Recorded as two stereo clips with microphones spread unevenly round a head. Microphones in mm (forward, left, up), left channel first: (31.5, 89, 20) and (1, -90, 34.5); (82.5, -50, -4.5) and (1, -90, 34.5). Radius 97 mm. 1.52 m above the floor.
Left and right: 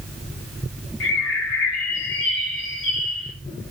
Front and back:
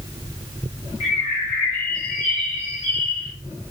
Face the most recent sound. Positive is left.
turn(degrees=60)